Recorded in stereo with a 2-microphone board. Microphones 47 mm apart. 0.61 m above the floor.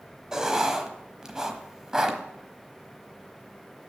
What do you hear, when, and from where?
0.3 s writing: 15° right (ahead or behind), 1.2 m